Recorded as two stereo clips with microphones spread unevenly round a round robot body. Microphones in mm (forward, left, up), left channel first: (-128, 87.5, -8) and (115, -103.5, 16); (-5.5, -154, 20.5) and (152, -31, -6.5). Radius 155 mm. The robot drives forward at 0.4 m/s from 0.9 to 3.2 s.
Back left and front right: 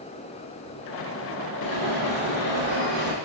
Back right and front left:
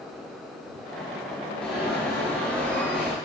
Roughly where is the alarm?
Behind left.